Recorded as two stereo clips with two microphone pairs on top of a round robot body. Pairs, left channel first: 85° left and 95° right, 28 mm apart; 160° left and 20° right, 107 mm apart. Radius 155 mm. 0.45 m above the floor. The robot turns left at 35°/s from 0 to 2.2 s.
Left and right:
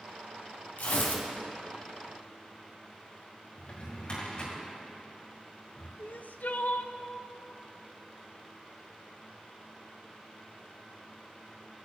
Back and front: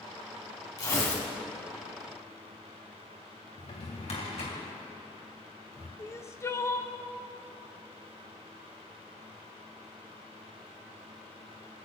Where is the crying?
95° left, 0.7 m.